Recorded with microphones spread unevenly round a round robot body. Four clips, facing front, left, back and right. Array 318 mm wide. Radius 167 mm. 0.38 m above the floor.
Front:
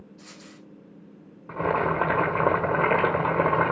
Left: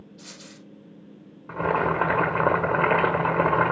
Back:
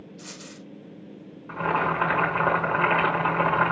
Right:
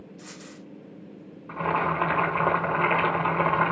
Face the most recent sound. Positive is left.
turn(degrees=45)